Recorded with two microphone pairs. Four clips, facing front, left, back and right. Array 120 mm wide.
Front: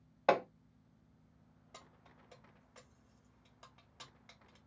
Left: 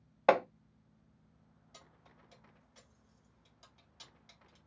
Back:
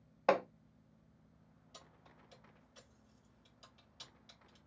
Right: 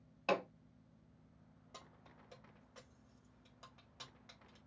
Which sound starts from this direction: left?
Hammering, at 0.3 s.